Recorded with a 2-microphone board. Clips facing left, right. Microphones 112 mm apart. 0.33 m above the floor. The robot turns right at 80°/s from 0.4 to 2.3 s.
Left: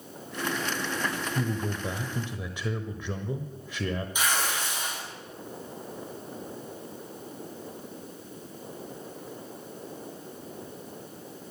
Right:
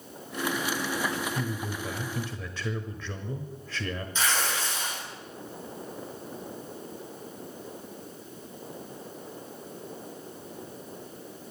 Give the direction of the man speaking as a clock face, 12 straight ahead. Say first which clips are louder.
Left 2 dB; 9 o'clock.